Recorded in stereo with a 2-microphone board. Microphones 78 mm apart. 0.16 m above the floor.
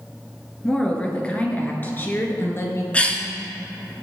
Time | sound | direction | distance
0.6 | a woman speaking | 10° left (ahead or behind) | 2.5 m
2.9 | a cough | 15° left (ahead or behind) | 2 m